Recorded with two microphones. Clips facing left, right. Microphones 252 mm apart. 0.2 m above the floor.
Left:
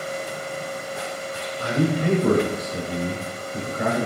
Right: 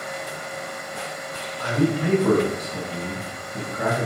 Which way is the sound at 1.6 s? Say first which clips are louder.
Right 1 dB; 5° left (ahead or behind).